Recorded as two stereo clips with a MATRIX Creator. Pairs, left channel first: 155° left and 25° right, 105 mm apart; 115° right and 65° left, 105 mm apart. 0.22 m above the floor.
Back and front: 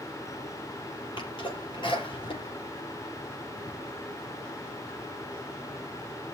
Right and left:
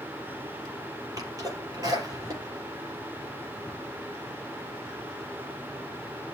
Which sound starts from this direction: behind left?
A sneeze, at 1.2 s.